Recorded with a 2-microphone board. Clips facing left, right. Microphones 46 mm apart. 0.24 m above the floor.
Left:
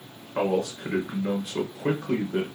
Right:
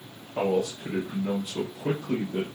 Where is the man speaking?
65° left (ahead or behind), 2.5 m.